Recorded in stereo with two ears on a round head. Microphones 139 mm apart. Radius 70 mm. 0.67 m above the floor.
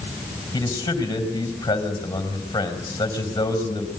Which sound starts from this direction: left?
A man speaking, at 0.5 s.